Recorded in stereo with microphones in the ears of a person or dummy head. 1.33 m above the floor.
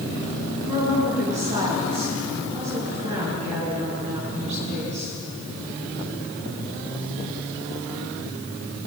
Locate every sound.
0.7 s a woman speaking: 35° right (ahead or behind), 9 m